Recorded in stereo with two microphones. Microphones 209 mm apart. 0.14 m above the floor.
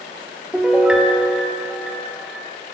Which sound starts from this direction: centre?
A piano, at 0.5 s.